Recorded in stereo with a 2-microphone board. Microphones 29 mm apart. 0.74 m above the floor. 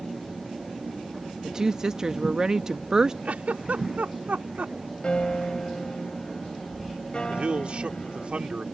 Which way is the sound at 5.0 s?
35° left (ahead or behind).